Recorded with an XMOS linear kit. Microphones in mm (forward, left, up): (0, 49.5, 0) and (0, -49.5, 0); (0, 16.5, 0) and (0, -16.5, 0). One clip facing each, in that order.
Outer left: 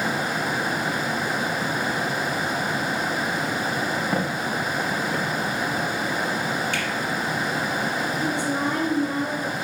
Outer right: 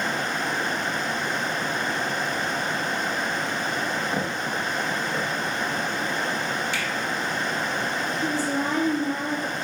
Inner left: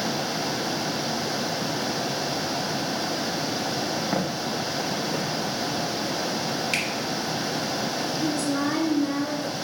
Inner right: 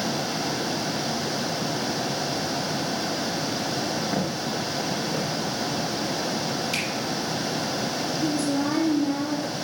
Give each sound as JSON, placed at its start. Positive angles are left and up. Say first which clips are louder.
{"t": 4.1, "sound": "footsteps", "louder": "outer left 2 dB, even", "side_deg": 60, "distance_m": 2.0}
{"t": 6.7, "sound": "a finger snap", "louder": "outer left 2 dB, inner left 4 dB", "side_deg": 55, "distance_m": 3.0}
{"t": 8.2, "sound": "a woman speaking", "louder": "even, inner right 1 dB", "side_deg": 65, "distance_m": 2.5}